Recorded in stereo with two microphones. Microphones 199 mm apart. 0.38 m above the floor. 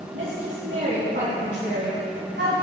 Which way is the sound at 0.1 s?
80° right.